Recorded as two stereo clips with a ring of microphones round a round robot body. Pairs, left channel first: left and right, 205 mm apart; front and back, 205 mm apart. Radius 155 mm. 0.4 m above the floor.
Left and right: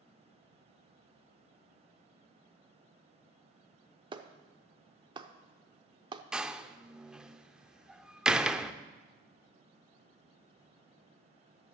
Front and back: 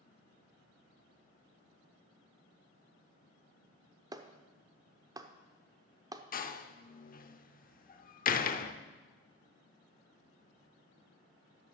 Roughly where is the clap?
Behind right.